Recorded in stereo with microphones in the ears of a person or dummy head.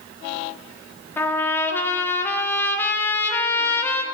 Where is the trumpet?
15° left (ahead or behind), 1.1 m.